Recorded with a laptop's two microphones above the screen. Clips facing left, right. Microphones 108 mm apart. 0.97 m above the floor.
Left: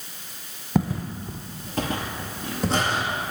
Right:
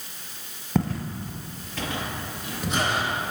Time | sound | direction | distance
0.8 | footsteps | 5° left (ahead or behind) | 1.3 m